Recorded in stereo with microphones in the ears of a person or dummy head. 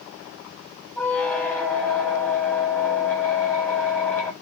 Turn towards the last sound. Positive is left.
turn(degrees=15)  # may be behind; listen again after turning